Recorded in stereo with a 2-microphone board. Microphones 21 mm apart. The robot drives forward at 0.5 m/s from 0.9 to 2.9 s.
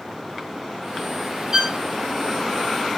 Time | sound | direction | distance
1.5 | a violin | 35° right (ahead or behind) | 1.3 m